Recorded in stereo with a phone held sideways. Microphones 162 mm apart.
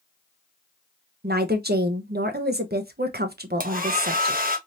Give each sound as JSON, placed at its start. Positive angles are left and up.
{"t": 1.2, "sound": "a woman speaking", "side_deg": -85, "distance_m": 0.9}
{"t": 3.6, "sound": "a hair dryer", "side_deg": -60, "distance_m": 0.8}